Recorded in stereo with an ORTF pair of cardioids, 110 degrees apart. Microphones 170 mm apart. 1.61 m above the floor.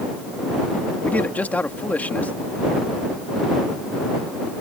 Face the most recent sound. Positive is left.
turn(degrees=10)